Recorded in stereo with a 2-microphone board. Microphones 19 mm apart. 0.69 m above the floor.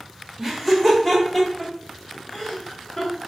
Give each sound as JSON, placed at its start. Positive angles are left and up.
{"t": 0.4, "sound": "laughter", "side_deg": 0, "distance_m": 1.0}